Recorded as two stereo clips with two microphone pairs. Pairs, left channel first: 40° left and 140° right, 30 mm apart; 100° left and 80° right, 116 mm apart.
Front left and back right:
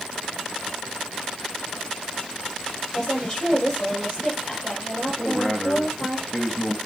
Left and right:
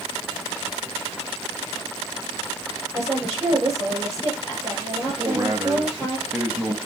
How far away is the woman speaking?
About 6 m.